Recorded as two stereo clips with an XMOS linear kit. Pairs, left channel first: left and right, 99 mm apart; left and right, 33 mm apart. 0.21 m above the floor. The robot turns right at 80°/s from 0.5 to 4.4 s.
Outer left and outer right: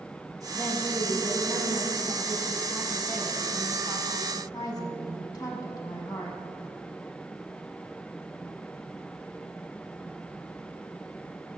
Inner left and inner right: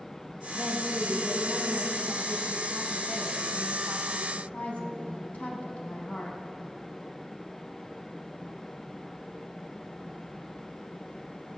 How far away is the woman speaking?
About 1.3 m.